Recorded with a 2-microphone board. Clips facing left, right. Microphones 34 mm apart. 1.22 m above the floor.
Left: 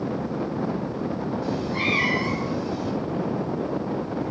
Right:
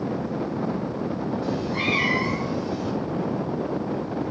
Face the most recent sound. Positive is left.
turn(degrees=-10)  # may be behind; listen again after turning